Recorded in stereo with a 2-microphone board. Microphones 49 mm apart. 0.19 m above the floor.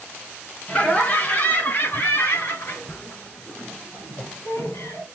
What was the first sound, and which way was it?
Laughter, 25° left (ahead or behind).